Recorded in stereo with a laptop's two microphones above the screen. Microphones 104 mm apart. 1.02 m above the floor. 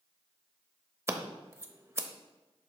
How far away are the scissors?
About 0.8 m.